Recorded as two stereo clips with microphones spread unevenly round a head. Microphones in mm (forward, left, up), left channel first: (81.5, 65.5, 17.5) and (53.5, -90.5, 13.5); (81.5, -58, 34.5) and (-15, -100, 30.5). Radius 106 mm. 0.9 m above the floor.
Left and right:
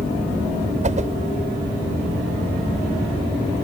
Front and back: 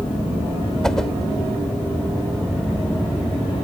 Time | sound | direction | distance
0.8 | a whoosh | 60° right | ?